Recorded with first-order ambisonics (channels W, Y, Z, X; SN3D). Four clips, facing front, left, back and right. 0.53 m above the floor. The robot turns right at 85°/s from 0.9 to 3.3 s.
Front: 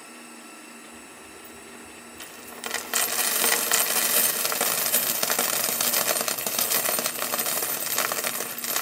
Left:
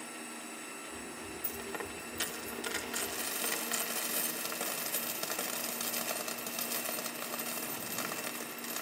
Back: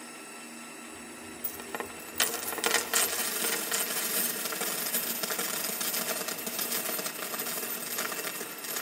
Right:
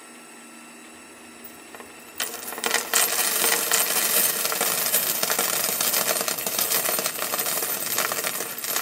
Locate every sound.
1.4 s a dropped coin: 150° left, 0.8 m; by 8.8 s 50° right, 0.8 m